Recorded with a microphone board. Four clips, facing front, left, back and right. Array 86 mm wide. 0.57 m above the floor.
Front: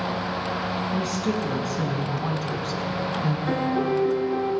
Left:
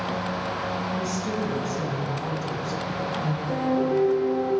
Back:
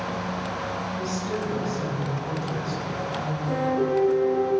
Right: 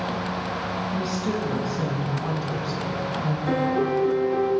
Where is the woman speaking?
20° right, 5.5 m; by 3.4 s straight ahead, 5 m.